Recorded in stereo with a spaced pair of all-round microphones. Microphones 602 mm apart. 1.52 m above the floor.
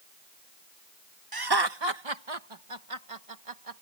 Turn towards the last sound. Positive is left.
turn(degrees=-65)  # may be behind; listen again after turning